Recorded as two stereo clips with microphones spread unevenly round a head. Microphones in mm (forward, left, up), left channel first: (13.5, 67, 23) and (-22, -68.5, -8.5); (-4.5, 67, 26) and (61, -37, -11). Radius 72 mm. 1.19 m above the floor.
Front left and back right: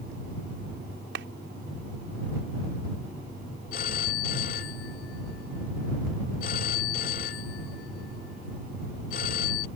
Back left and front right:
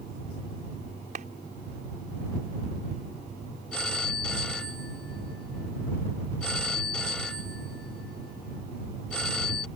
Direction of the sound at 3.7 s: 40° left.